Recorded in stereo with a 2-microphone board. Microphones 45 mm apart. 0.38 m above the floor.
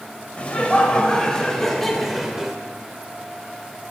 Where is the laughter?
30° left (ahead or behind), 2 m; by 2.6 s 10° right (ahead or behind), 1.5 m.